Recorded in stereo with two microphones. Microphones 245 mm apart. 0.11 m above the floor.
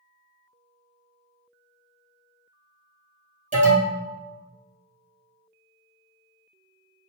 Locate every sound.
3.5 s an alarm: 30° right (ahead or behind), 1.9 m